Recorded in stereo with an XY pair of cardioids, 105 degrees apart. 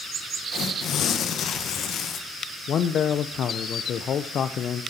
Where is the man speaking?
55° left, 0.7 m.